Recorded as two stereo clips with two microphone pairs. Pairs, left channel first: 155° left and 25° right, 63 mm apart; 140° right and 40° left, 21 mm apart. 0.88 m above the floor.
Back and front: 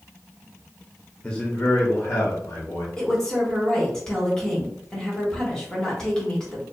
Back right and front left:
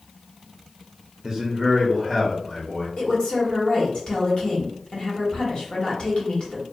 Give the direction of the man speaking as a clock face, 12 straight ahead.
9 o'clock.